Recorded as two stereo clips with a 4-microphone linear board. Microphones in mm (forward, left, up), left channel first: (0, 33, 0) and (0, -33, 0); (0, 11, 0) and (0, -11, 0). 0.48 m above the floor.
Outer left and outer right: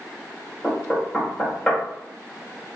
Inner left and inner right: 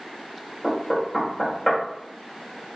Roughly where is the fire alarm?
I don't hear a fire alarm.